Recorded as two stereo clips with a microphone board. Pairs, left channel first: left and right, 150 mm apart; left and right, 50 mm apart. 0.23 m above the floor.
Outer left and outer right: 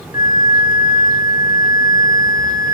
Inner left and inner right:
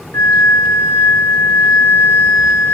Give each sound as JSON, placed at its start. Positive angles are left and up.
{"t": 0.1, "sound": "a flute", "side_deg": 70, "distance_m": 1.5}